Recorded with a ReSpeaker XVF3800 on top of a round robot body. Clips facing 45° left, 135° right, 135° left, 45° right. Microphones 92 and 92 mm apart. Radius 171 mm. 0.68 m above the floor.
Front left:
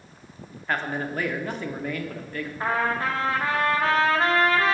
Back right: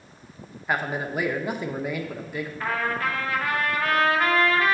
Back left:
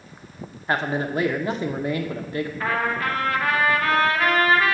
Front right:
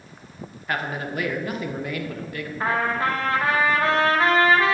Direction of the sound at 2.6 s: Straight ahead.